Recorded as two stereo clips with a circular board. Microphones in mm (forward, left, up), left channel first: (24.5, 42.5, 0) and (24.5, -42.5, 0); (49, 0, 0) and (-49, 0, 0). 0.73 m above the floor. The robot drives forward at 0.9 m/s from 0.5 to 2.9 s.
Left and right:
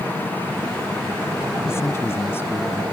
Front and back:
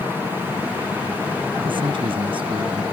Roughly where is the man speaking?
Behind left.